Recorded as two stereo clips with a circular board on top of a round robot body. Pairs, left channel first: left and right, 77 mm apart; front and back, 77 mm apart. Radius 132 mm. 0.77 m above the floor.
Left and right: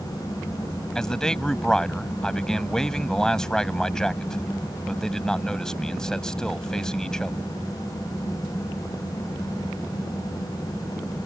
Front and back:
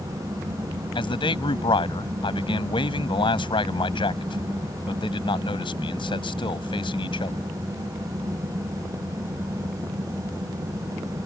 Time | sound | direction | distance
0.9 | a man speaking | 5° left | ?